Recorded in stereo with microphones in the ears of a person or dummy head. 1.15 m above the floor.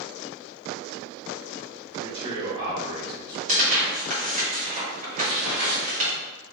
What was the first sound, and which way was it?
A man speaking, 25° right (ahead or behind).